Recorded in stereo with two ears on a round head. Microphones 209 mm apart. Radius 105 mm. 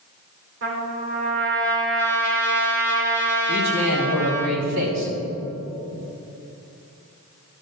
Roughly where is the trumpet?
Right.